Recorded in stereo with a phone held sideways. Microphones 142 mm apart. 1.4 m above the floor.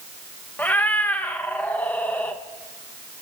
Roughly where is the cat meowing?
Centre.